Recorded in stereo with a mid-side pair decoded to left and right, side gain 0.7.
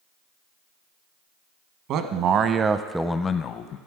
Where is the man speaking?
55° right, 1.1 m; by 3.8 s 55° left, 0.8 m.